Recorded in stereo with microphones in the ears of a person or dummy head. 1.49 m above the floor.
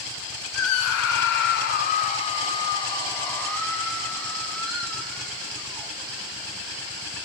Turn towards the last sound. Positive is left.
turn(degrees=0)  # may be behind; listen again after turning